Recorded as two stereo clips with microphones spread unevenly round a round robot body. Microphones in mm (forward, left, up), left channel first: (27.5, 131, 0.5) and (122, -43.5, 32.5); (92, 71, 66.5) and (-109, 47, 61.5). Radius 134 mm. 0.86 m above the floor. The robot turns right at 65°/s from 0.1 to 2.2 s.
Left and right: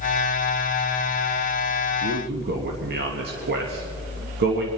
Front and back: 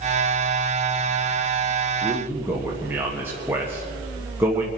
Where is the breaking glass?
I don't hear breaking glass.